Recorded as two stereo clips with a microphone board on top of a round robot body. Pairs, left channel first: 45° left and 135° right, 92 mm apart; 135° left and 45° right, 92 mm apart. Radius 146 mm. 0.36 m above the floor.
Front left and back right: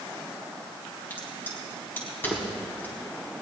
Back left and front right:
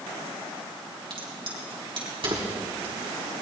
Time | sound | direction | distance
1.1 | a crack | 25° right | 3.5 m